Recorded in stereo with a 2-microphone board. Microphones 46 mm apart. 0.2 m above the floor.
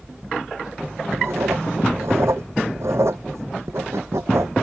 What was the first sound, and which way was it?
Writing, 75° right (ahead or behind).